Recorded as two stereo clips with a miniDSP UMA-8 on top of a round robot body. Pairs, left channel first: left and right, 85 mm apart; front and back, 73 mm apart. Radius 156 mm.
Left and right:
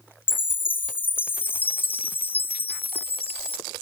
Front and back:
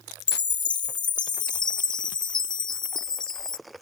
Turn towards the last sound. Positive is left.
turn(degrees=20)